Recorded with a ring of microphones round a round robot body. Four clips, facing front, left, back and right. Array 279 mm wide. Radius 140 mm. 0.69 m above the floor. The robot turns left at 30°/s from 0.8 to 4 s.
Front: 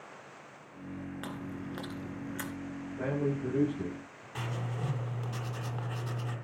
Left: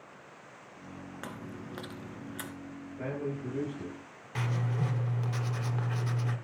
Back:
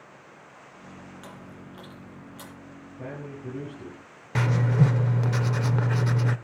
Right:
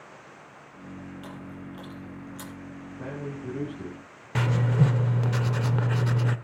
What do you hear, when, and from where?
1.2 s chewing: 65° left, 2.5 m; by 2.5 s 25° left, 2.5 m
3.0 s a man speaking: 15° left, 9 m; by 4.2 s 15° right, 9 m
4.3 s writing: 140° right, 1.0 m